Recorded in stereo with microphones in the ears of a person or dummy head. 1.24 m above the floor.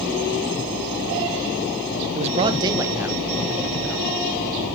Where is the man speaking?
40° right (ahead or behind), 0.7 m; by 4.1 s 5° left (ahead or behind), 1.5 m.